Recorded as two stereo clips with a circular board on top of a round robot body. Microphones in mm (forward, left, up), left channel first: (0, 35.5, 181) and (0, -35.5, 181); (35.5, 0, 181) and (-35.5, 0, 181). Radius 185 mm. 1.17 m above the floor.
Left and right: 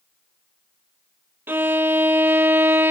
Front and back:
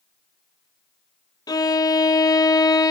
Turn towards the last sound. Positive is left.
turn(degrees=-30)